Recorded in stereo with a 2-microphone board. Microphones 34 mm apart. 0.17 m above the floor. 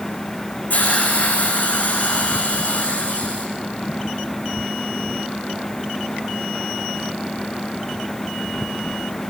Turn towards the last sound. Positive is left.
turn(degrees=50)  # may be behind; listen again after turning